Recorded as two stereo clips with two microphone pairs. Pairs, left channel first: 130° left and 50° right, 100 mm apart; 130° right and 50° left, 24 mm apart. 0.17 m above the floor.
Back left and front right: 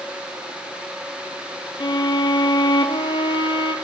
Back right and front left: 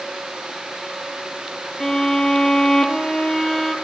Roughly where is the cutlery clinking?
No cutlery clinking in this recording.